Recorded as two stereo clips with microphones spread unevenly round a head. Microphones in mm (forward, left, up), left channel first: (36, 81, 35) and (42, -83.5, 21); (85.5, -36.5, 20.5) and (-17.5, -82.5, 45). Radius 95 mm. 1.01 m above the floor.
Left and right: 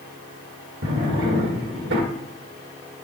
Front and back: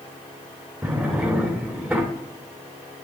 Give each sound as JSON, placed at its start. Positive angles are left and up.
{"t": 0.8, "sound": "a drawer", "azimuth_deg": -80, "distance_m": 2.0}